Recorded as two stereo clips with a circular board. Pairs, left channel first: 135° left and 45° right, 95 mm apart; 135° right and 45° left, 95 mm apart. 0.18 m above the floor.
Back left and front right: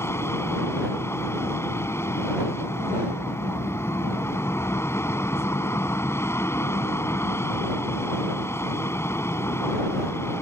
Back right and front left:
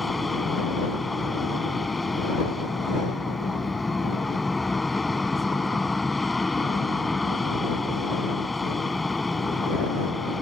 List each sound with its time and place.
0.0 s an aircraft: 135° left